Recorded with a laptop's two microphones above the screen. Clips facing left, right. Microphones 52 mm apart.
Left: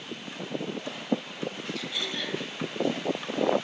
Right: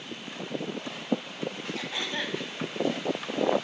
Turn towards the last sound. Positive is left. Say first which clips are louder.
# right 1 dB
turn(degrees=-35)  # may be behind; listen again after turning